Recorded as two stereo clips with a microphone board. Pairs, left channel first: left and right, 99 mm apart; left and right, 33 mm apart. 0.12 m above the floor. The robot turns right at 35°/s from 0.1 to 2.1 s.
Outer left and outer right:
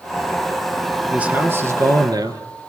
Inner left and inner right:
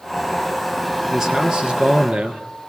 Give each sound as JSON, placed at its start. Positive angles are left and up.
{"t": 1.1, "sound": "a man speaking", "azimuth_deg": -170, "distance_m": 2.0}